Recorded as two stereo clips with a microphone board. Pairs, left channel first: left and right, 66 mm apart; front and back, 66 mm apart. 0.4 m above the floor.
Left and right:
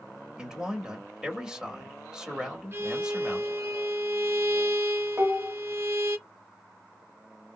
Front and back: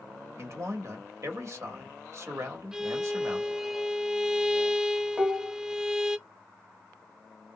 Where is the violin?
105° right, 0.5 m.